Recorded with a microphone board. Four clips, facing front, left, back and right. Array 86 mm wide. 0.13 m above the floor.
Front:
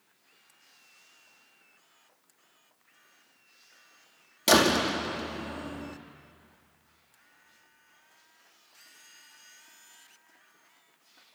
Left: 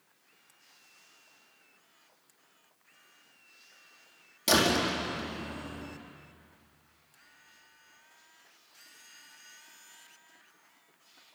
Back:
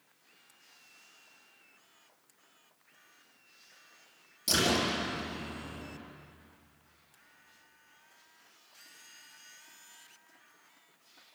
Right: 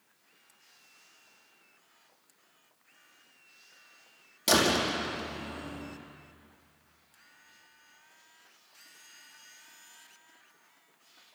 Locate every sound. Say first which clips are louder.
4.5 s a door slam: even, front 7 dB; straight ahead, 4.5 m